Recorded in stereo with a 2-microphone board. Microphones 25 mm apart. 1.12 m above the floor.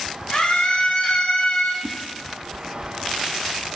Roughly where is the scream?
Left.